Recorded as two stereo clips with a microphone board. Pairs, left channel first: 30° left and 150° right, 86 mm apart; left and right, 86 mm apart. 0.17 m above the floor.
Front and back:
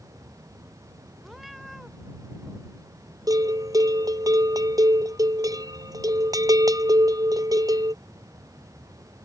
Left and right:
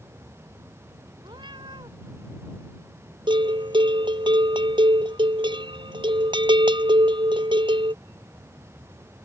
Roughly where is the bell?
Right.